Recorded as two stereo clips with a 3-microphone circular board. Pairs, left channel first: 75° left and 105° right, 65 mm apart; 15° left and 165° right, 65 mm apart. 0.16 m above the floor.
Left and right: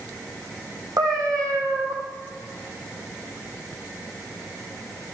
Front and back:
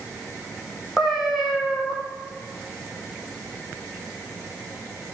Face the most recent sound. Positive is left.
turn(degrees=-80)